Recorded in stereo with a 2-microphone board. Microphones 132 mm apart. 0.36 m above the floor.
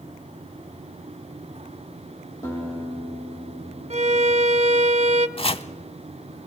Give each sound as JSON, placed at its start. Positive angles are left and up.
{"t": 2.4, "sound": "a guitar", "side_deg": 20, "distance_m": 7.5}
{"t": 3.9, "sound": "a violin", "side_deg": -50, "distance_m": 0.7}
{"t": 5.4, "sound": "chopping", "side_deg": 45, "distance_m": 0.6}